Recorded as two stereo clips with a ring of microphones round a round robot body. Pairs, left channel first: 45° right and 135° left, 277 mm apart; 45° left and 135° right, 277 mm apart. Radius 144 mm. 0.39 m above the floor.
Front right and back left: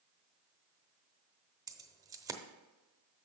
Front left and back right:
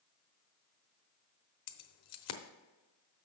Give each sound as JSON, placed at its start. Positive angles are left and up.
{"t": 1.7, "sound": "keys jangling", "azimuth_deg": 60, "distance_m": 0.9}